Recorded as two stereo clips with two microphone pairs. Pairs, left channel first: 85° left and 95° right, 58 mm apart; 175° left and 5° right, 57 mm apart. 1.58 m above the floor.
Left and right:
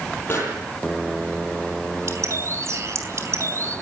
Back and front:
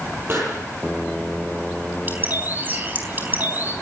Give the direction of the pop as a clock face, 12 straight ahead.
11 o'clock.